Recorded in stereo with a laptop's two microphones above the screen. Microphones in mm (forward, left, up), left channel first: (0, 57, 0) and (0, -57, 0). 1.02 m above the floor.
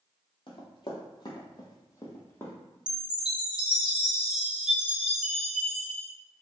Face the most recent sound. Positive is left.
turn(degrees=-5)  # may be behind; listen again after turning